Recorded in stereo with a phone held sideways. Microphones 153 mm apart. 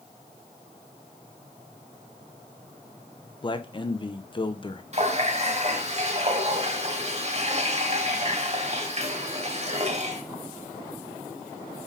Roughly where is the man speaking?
Left.